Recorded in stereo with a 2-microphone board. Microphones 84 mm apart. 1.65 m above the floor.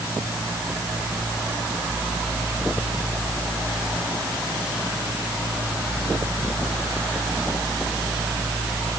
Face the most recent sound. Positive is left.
No sound to turn to.